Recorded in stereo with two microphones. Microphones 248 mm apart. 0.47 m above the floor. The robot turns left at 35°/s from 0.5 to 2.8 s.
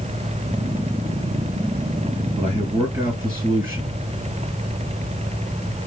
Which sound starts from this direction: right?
A man speaking, at 2.4 s.